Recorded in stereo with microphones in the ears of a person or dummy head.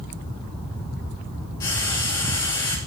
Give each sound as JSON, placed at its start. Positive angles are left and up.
{"t": 1.6, "sound": "frying", "side_deg": 20, "distance_m": 0.6}